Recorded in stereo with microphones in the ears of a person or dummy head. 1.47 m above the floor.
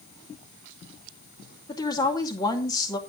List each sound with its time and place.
1.7 s a woman speaking: 25° left (ahead or behind), 2 m